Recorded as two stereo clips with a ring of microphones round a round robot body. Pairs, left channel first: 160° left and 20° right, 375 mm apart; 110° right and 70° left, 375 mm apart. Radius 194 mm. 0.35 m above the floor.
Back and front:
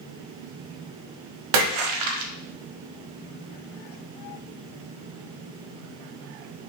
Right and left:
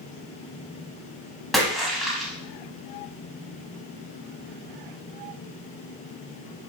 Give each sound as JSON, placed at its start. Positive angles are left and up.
{"t": 1.5, "sound": "a splash", "azimuth_deg": -25, "distance_m": 0.6}